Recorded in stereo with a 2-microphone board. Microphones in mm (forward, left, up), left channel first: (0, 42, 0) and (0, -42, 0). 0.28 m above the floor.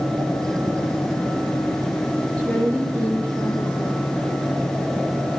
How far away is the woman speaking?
About 6 m.